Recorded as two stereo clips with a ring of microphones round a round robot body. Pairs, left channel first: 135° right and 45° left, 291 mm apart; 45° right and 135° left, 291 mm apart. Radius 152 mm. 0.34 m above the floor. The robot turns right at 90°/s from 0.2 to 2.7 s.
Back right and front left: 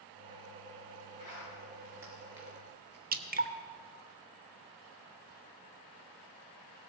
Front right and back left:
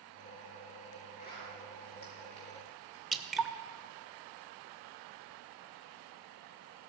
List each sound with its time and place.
1.2 s a zipper: 110° right, 5 m; by 3.0 s 25° left, 5 m
3.1 s dripping: 45° left, 1.0 m